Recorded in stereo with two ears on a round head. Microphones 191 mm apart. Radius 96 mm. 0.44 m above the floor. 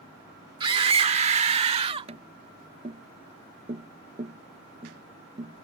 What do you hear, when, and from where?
0.6 s a scream: 25° right (ahead or behind)
2.1 s tapping: 35° right (ahead or behind)